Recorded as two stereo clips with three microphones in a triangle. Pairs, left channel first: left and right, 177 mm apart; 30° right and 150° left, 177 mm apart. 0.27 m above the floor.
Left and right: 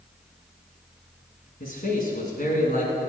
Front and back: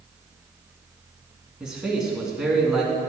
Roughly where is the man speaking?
Ahead left.